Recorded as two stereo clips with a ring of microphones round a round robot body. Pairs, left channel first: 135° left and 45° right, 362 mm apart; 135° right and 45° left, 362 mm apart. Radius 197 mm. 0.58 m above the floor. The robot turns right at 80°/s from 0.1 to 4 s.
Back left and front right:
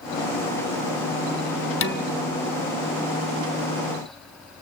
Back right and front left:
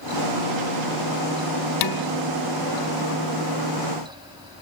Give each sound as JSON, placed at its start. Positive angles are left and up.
{"t": 1.8, "sound": "dishes clattering", "azimuth_deg": -170, "distance_m": 0.9}